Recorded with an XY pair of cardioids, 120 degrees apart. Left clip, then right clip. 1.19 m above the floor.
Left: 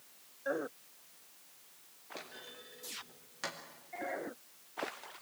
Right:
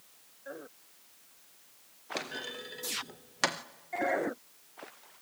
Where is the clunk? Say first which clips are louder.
Right 11 dB; 70° right, 0.9 m.